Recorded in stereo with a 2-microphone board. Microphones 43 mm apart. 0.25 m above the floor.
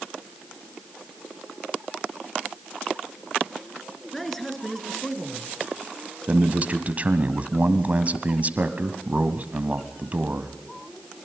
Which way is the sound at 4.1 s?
5° left (ahead or behind).